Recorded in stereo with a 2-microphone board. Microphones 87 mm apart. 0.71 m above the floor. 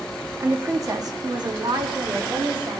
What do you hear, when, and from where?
0.4 s a woman speaking: 30° right (ahead or behind), 1.4 m; by 2.8 s 55° right (ahead or behind), 2 m